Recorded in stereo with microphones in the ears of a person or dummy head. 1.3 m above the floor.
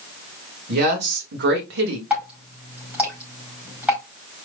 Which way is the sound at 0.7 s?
50° right (ahead or behind).